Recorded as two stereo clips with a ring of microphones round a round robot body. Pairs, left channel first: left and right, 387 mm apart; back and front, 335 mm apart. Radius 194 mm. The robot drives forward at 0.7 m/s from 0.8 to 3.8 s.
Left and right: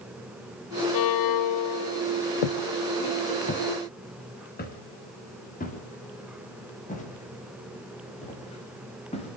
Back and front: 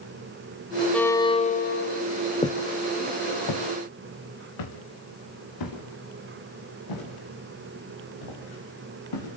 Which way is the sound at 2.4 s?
105° left.